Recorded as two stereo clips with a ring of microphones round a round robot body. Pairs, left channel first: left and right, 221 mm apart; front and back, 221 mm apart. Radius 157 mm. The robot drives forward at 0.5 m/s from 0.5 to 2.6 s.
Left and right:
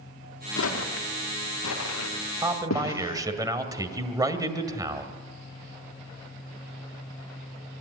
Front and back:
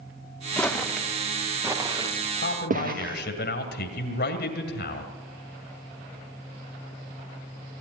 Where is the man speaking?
20° right, 2 m.